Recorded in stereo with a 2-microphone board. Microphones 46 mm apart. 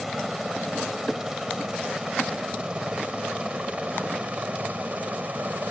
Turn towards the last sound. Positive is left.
turn(degrees=-35)  # may be behind; listen again after turning